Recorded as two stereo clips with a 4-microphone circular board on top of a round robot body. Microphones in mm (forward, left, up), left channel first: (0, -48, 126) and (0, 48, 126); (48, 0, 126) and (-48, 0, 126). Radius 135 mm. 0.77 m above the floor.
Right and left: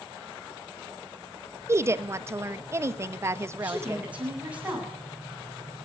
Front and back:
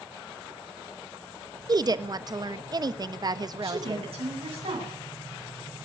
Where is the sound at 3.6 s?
165° left, 9.5 m.